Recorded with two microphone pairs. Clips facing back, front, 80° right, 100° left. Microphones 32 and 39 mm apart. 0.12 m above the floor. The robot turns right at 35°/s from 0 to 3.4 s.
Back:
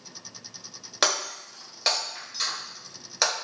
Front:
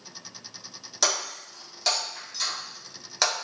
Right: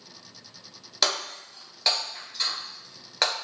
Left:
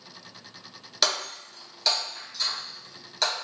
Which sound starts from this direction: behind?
Breaking glass, at 1.0 s.